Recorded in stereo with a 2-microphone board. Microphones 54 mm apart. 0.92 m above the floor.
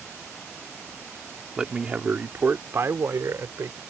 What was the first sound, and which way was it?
A man speaking, 10° right (ahead or behind).